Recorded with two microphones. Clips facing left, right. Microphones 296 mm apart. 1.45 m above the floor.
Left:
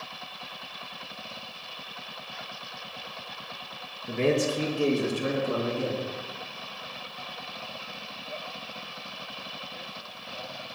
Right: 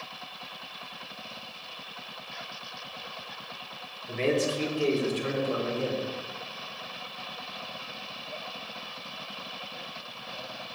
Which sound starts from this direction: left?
A man speaking, at 4.1 s.